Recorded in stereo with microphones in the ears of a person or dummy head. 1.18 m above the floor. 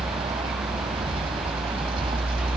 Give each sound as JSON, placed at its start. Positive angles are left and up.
{"t": 0.0, "sound": "a vehicle", "side_deg": -30}